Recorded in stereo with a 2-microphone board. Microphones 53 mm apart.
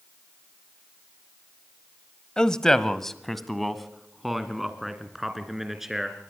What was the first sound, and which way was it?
A man speaking, 15° left (ahead or behind).